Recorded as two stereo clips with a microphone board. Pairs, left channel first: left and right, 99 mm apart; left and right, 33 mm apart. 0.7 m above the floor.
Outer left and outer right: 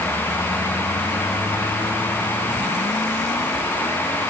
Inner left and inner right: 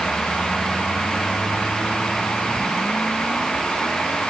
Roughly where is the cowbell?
I don't hear a cowbell.